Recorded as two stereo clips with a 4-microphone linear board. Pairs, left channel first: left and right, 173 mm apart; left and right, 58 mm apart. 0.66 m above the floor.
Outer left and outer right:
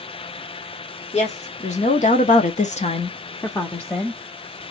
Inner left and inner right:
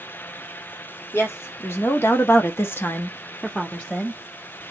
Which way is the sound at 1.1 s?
40° left (ahead or behind).